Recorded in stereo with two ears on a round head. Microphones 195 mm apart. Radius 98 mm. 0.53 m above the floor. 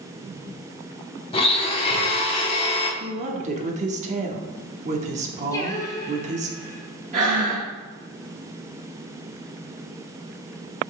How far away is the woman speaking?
About 1.0 m.